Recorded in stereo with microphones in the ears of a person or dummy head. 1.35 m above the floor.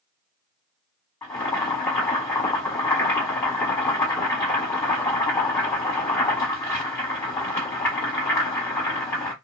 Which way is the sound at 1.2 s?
5° left (ahead or behind).